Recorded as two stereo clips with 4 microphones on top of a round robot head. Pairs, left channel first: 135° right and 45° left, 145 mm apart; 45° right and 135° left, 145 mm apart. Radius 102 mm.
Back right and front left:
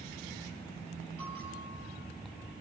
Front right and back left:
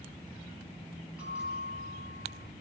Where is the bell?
50° left, 10 m.